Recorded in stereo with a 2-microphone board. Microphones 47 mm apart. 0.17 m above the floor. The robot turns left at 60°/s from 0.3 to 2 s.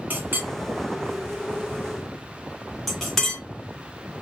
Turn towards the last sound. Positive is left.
turn(degrees=5)  # may be behind; listen again after turning